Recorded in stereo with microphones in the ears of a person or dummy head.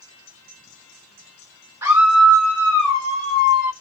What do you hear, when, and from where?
1.8 s a scream: 15° right (ahead or behind), 1.3 m; by 3.7 s 45° left (ahead or behind), 1.5 m